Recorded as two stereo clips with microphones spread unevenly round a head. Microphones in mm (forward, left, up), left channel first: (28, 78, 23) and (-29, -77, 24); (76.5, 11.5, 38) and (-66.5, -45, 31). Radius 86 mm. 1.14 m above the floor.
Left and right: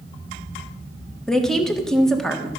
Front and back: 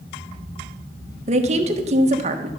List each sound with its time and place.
1.3 s a woman speaking: 155° left, 1.2 m